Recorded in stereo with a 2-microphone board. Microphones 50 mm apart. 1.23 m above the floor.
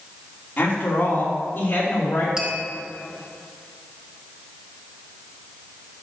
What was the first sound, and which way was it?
A woman speaking, 35° left (ahead or behind).